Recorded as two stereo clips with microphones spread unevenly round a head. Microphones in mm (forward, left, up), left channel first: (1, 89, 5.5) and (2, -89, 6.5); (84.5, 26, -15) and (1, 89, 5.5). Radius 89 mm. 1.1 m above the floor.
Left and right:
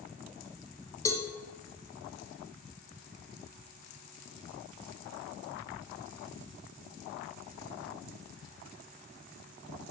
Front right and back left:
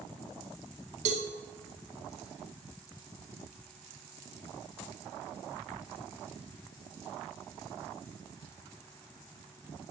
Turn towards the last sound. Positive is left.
turn(degrees=160)